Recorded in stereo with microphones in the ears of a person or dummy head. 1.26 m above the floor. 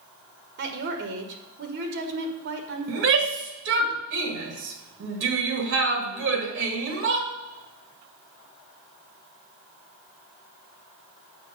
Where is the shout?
60° right (ahead or behind), 1.5 m.